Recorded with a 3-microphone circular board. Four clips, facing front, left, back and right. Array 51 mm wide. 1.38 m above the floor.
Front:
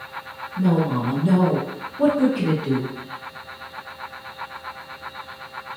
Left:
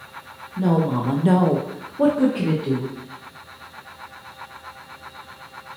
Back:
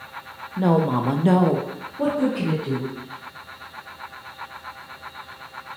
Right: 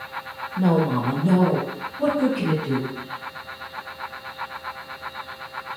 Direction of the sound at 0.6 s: 165° right.